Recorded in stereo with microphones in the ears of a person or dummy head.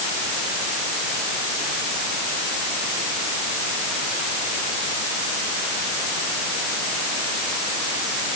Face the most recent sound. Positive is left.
No sound to turn to.